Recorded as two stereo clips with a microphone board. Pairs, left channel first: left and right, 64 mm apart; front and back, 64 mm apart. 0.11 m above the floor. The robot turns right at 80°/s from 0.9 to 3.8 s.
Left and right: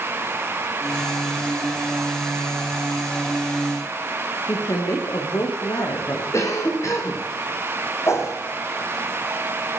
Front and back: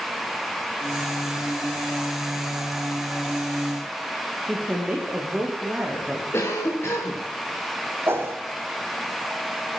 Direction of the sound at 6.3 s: 50° left.